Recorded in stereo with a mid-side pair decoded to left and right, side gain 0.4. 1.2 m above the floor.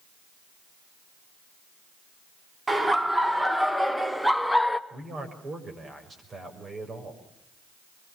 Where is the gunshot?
I don't hear a gunshot.